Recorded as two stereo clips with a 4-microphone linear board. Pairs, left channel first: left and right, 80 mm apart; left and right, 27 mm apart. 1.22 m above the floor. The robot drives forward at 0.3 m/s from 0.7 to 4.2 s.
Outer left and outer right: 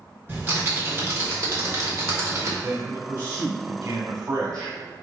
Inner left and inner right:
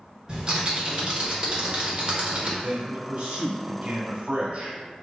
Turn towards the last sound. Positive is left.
turn(degrees=-75)  # may be behind; listen again after turning